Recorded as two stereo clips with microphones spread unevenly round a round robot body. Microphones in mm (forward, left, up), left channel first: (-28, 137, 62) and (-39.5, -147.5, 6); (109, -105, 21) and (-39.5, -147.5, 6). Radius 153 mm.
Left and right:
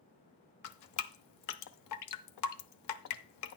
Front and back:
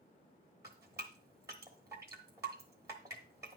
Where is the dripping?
115° left, 0.7 m.